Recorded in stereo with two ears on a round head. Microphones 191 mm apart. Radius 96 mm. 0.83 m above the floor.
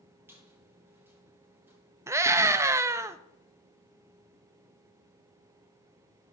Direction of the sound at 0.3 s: 10° right (ahead or behind).